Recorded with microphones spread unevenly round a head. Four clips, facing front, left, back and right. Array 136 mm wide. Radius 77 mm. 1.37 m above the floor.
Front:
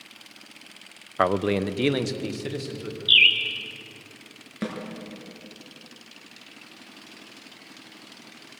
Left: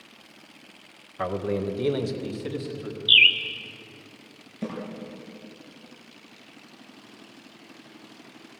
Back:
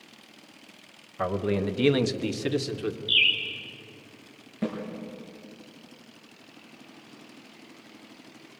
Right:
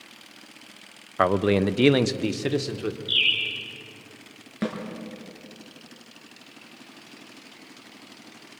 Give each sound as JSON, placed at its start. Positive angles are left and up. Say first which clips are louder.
{"t": 1.2, "sound": "a man speaking", "louder": "right 7 dB, front 4 dB", "azimuth_deg": -40, "distance_m": 0.9}
{"t": 3.1, "sound": "a bird", "louder": "left 6 dB, front 5 dB", "azimuth_deg": 50, "distance_m": 2.0}
{"t": 4.6, "sound": "a snare drum", "louder": "right 4 dB, back 1 dB", "azimuth_deg": -50, "distance_m": 5.5}